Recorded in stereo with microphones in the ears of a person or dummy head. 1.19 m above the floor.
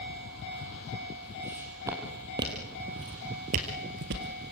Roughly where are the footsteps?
Centre.